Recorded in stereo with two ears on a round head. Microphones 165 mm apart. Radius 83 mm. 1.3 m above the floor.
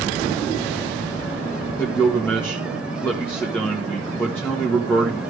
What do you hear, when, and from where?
1.8 s a man speaking: 10° left (ahead or behind), 1.6 m